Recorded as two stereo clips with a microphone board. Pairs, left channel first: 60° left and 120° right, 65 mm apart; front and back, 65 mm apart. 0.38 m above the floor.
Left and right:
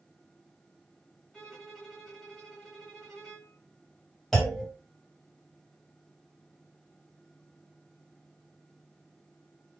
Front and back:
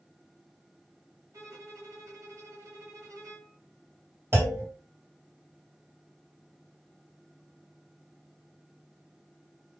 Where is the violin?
145° left, 1.9 m.